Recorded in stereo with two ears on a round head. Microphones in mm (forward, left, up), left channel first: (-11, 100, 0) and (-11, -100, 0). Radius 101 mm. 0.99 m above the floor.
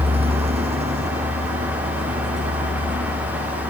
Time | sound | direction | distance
0.0 | a vehicle | 25° right (ahead or behind) | ?